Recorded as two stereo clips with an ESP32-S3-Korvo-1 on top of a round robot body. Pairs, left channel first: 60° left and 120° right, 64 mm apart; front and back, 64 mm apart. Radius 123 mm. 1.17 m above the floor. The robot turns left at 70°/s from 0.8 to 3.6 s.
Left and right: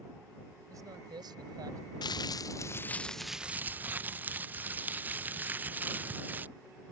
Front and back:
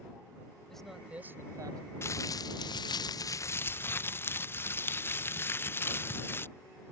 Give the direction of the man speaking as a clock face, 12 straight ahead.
3 o'clock.